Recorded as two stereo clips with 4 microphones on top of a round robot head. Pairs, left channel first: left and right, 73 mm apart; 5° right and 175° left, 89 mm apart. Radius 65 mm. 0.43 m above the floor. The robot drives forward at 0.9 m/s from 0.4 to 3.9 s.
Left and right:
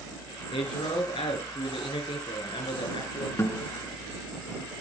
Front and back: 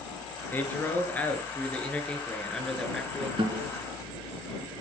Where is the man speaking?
60° left, 6.5 m; by 3.3 s 85° left, 6 m.